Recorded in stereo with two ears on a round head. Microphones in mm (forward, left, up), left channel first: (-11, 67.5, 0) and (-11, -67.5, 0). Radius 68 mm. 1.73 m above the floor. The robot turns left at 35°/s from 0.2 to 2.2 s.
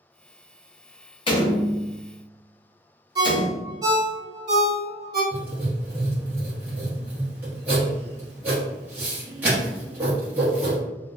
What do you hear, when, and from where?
1.3 s a door slam: 35° left (ahead or behind), 0.7 m; by 3.7 s 25° left (ahead or behind), 0.7 m
3.1 s a ringtone: 30° right (ahead or behind), 0.9 m
5.3 s writing: 10° right (ahead or behind), 0.9 m